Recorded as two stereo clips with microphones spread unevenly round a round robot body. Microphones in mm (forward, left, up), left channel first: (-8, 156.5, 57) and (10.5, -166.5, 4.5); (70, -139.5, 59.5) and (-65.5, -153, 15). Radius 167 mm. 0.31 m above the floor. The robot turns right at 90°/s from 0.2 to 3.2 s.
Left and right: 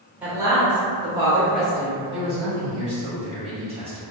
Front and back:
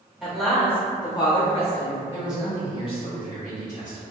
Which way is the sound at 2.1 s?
125° right.